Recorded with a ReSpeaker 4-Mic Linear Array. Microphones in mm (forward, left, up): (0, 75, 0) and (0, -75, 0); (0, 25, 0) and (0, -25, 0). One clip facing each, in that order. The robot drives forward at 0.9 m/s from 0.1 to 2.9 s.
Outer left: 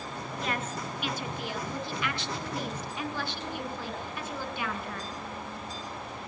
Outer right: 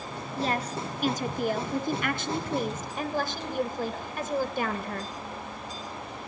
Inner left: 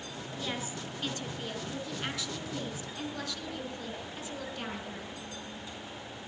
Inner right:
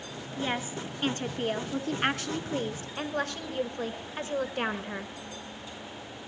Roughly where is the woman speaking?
Right.